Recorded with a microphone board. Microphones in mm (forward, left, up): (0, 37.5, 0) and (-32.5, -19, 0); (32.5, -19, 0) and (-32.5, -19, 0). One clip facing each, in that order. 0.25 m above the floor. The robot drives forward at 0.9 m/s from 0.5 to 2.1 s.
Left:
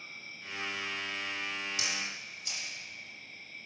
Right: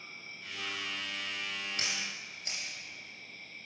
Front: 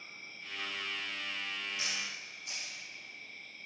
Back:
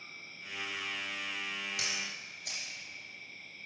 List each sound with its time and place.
0.0 s an insect: 65° right, 3 m; by 3.7 s 95° right, 2.5 m
1.8 s a camera shutter: 165° right, 3.5 m